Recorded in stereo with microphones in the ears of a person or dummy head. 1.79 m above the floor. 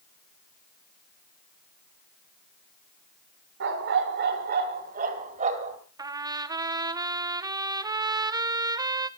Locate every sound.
3.6 s a dog barking: 55° right (ahead or behind), 2 m; by 5.8 s 40° right (ahead or behind), 3.5 m
6.0 s a trumpet: 15° right (ahead or behind), 0.6 m